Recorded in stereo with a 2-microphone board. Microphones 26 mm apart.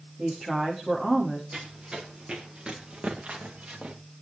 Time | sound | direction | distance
0.2 | a woman speaking | 15° right (ahead or behind) | 6 m
1.5 | running footsteps | 35° right (ahead or behind) | 4.5 m